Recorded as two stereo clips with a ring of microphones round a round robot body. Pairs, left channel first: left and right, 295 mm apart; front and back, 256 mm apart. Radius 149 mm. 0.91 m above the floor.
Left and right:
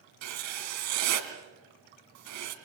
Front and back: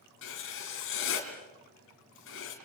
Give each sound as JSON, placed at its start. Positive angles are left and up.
{"t": 0.2, "sound": "writing", "azimuth_deg": -55, "distance_m": 3.5}